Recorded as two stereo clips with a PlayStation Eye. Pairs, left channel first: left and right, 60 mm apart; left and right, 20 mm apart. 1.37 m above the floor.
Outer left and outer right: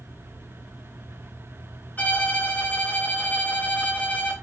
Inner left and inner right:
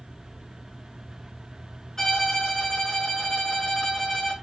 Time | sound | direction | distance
2.0 | a violin | 25° left (ahead or behind) | 2.5 m